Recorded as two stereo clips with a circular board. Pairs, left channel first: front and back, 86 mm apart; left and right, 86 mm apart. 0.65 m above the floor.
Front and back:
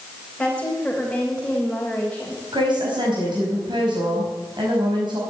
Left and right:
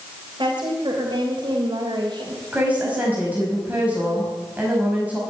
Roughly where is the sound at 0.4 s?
Right.